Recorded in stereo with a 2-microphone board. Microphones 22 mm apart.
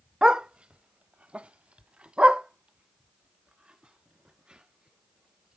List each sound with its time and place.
0.2 s a dog barking: 35° right (ahead or behind), 0.7 m